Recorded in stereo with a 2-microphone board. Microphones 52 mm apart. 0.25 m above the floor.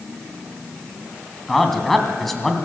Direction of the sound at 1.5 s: 5° left (ahead or behind).